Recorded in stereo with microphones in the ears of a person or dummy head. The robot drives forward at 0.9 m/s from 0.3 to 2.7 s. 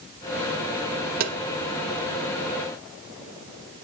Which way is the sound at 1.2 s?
50° right (ahead or behind).